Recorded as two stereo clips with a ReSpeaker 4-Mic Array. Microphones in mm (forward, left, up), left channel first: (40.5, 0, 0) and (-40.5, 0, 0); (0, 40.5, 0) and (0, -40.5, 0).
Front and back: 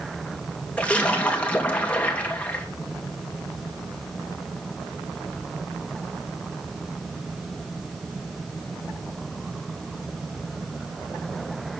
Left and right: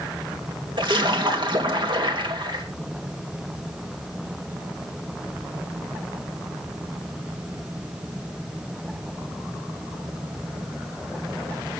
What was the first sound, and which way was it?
A splash, 75° right.